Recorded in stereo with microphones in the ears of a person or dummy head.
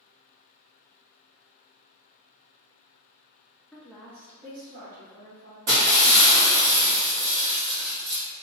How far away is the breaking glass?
About 1.1 m.